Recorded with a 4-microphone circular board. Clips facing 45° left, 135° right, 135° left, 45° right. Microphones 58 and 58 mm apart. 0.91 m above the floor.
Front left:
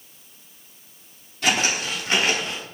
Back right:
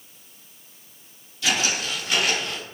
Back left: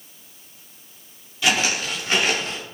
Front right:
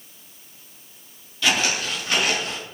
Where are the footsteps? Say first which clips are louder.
Front left 2 dB, back left 1 dB; 65° left, 1.6 m; by 2.6 s 100° left, 1.1 m.